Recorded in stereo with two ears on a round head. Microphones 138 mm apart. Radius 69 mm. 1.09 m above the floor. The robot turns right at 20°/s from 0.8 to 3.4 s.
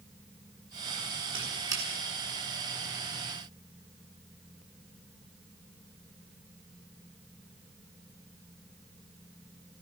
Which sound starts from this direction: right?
A squeak, at 1.3 s.